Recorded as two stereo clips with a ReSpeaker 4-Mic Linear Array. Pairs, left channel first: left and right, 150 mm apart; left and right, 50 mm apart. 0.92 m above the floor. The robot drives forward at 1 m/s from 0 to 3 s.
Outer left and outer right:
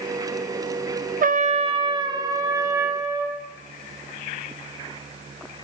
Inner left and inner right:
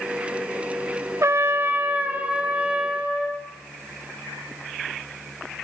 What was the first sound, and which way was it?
A trumpet, 60° right (ahead or behind).